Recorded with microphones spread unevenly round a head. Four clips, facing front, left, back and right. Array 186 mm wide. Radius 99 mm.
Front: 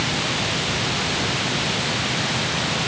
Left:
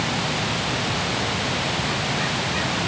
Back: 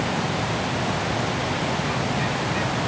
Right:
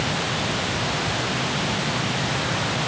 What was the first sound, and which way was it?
Only background noise.